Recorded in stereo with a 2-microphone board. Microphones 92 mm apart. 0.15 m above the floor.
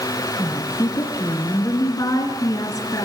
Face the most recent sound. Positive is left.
turn(degrees=40)  # may be behind; listen again after turning